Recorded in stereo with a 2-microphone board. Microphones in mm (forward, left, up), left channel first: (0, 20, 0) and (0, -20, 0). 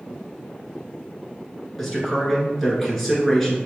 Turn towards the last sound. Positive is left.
turn(degrees=5)  # may be behind; listen again after turning